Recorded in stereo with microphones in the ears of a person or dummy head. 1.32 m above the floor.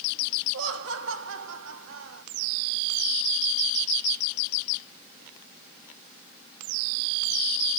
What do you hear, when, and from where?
0.5 s laughter: 70° right (ahead or behind), 1.3 m